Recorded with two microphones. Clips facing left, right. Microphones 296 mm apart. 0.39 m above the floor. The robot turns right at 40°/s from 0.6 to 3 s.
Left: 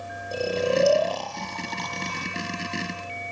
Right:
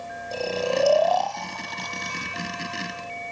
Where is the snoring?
20° left (ahead or behind); by 3.3 s 60° left (ahead or behind).